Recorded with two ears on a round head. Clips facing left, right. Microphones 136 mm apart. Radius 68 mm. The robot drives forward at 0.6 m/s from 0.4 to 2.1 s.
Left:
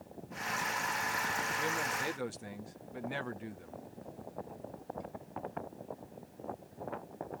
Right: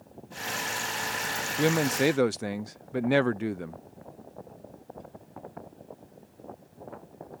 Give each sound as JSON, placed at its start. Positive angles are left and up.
{"t": 1.6, "sound": "a man speaking", "side_deg": -80}